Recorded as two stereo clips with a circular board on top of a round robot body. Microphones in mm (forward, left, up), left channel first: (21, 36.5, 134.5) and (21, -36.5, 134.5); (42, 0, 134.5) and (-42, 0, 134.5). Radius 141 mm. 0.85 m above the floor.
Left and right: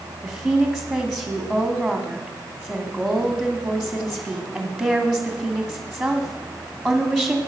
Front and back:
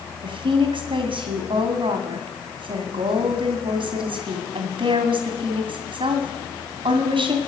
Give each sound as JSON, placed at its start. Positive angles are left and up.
{"t": 0.2, "sound": "a woman speaking", "azimuth_deg": 180, "distance_m": 2.5}